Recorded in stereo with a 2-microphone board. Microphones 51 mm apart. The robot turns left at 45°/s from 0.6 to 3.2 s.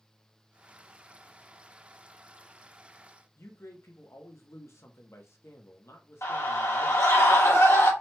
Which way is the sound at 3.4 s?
60° left (ahead or behind).